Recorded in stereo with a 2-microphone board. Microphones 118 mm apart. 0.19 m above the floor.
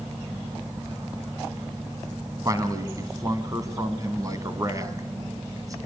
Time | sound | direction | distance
2.5 | a man speaking | 30° right (ahead or behind) | 1.8 m